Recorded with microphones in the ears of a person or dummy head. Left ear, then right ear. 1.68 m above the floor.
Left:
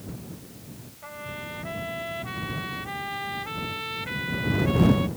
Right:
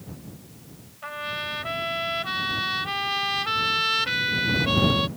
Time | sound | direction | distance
1.0 | a trumpet | 60° right (ahead or behind) | ?